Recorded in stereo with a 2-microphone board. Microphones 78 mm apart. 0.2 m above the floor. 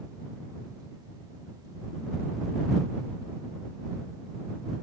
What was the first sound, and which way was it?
Only background noise.